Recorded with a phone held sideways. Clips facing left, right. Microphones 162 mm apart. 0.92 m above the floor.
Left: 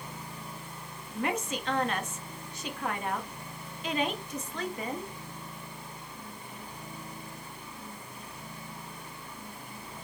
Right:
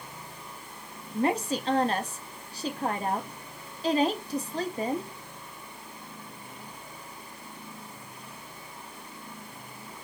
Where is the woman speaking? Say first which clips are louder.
Right 5 dB; 35° right (ahead or behind), 1.1 m.